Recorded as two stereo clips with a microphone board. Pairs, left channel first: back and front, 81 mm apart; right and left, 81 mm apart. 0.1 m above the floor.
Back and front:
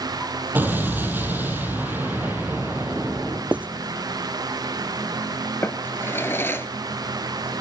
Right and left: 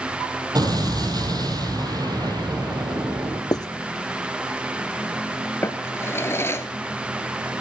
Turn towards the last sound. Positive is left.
turn(degrees=-130)